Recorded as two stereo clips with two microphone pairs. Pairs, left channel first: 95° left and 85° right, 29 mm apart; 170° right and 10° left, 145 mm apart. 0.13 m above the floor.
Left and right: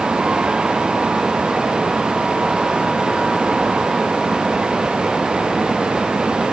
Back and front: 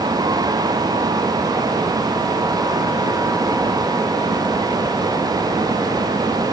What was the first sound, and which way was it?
Only background noise.